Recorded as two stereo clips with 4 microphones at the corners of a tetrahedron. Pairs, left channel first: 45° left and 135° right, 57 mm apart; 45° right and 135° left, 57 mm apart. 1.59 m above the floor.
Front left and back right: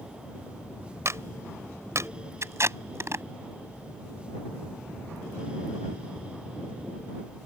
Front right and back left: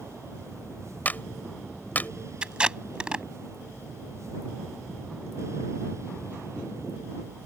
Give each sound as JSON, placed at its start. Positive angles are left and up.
{"t": 1.1, "sound": "a clap", "azimuth_deg": -105}
{"t": 2.4, "sound": "tape being pulled", "azimuth_deg": -155}